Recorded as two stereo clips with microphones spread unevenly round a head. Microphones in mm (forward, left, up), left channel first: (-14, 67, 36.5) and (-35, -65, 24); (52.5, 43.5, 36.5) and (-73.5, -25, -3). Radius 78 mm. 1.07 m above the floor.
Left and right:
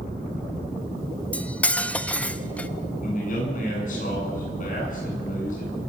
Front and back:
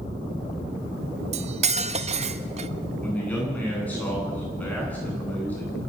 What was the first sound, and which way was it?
Cutlery clinking, 160° left.